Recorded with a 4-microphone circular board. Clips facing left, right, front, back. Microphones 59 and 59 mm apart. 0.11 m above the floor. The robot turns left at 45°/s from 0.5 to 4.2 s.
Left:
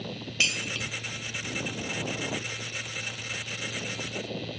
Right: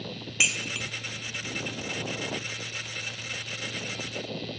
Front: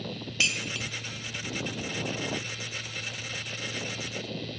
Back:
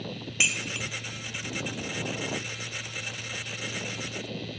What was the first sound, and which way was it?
Dishes clattering, 135° right.